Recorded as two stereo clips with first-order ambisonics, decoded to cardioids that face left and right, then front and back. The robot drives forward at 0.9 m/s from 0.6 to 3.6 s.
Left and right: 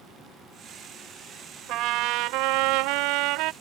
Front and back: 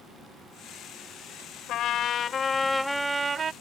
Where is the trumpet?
50° right; by 3.5 s 120° right.